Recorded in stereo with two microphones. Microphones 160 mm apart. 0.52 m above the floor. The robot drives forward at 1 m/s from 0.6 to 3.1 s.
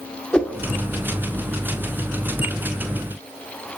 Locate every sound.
0.3 s a whoosh: 5° left (ahead or behind), 1.6 m